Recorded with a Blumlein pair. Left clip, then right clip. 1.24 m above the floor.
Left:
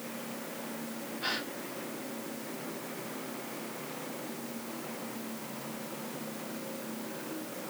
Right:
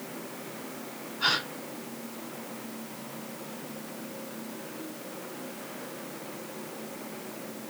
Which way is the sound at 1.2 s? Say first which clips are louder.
Right 8 dB; 45° right.